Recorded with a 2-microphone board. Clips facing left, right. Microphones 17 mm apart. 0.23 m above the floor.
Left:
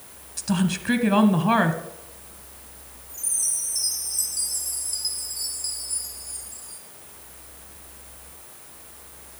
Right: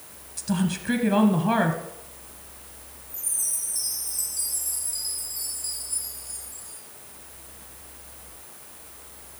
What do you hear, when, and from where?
0.4 s a woman speaking: 20° left (ahead or behind), 1.1 m
3.1 s a chime: 25° left (ahead or behind), 3.5 m